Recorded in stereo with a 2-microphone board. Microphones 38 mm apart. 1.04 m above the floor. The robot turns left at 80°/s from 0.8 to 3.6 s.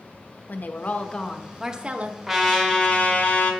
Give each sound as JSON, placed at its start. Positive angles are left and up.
{"t": 0.5, "sound": "a woman speaking", "azimuth_deg": 55, "distance_m": 0.7}
{"t": 2.3, "sound": "a trumpet", "azimuth_deg": -175, "distance_m": 1.2}